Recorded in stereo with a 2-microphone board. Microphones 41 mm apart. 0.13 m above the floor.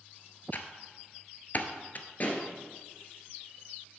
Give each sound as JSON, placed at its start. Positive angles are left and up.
{"t": 0.5, "sound": "typing on a keyboard", "side_deg": 45, "distance_m": 0.8}
{"t": 2.2, "sound": "a pop", "side_deg": 40, "distance_m": 1.8}